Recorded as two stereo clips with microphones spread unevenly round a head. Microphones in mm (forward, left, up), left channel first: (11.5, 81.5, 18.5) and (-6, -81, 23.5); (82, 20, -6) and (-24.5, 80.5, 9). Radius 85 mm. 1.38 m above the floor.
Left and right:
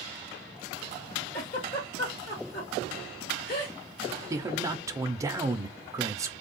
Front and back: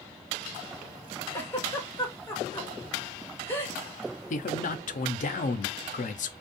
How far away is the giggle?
About 2 m.